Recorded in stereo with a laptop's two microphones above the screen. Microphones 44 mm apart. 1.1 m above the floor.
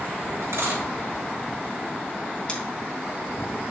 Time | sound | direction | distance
0.4 | a dropped coin | 75° right (ahead or behind) | 3.5 m
2.5 | scissors | 20° left (ahead or behind) | 2.5 m